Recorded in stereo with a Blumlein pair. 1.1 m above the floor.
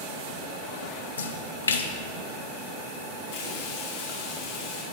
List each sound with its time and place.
1.2 s a splash: 70° left, 0.8 m
3.3 s frying: 50° left, 2.5 m